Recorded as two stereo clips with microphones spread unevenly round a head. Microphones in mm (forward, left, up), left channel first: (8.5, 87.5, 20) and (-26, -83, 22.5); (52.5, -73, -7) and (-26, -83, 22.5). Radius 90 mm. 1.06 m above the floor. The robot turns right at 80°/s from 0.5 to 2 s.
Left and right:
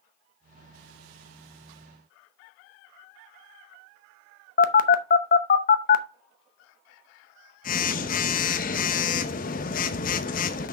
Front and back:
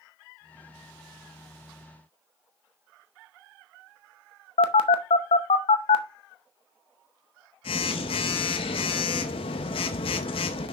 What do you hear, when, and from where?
4.6 s a phone buzzing: 30° left, 0.7 m